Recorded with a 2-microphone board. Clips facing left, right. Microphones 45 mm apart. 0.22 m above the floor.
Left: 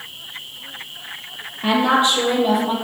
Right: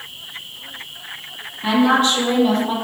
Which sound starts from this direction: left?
A woman speaking, at 1.6 s.